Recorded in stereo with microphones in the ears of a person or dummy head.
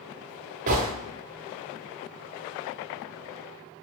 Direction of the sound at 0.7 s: 40° right (ahead or behind).